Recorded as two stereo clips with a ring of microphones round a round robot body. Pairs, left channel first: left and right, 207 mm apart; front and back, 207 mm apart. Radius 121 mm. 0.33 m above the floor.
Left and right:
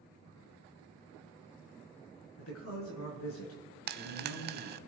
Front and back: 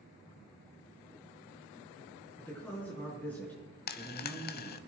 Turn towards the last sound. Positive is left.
turn(degrees=-45)